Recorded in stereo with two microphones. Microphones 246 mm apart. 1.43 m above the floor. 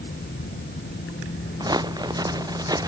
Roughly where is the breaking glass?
No breaking glass in this recording.